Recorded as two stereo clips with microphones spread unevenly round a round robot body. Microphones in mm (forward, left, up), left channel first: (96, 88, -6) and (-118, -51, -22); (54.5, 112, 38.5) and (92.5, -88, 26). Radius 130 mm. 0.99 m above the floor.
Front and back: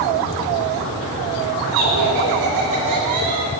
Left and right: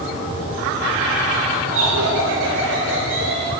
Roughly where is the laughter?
Behind right.